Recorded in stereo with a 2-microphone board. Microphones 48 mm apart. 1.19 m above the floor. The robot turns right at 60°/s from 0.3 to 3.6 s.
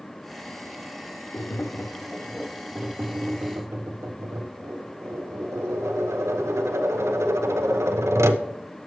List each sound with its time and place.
1.3 s tapping: 125° left, 0.6 m; by 8.4 s 100° right, 0.6 m